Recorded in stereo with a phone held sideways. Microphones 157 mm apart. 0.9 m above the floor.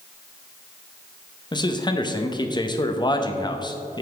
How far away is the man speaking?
About 0.7 m.